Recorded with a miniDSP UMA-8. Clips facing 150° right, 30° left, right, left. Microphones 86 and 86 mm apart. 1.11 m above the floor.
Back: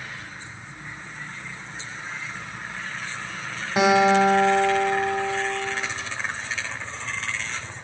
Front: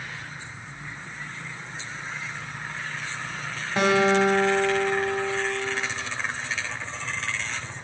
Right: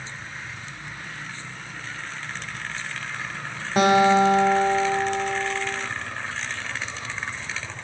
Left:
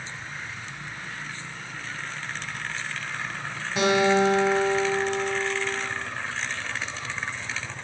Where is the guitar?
75° right, 0.7 m.